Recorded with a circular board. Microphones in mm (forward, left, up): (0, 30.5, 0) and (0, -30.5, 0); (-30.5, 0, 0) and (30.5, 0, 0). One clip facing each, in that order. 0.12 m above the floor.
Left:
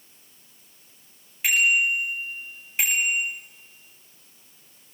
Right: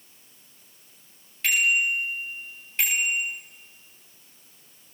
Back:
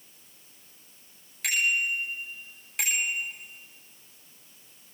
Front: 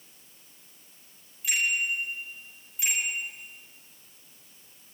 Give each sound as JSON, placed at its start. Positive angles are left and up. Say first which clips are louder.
{"t": 1.4, "sound": "a bicycle bell", "louder": "left 2 dB, back 1 dB", "azimuth_deg": 170, "distance_m": 10.0}